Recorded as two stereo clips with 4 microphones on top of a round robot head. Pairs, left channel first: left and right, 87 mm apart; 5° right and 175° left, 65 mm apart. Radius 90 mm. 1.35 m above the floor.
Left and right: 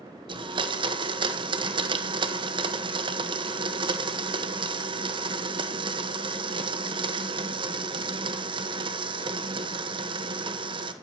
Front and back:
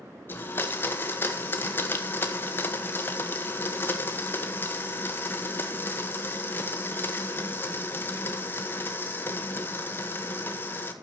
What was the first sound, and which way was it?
A blender, 65° right.